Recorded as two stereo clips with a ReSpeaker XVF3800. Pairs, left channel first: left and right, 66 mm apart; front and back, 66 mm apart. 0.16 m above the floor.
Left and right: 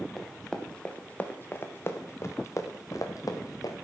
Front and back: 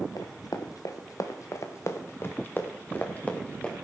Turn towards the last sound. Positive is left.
turn(degrees=70)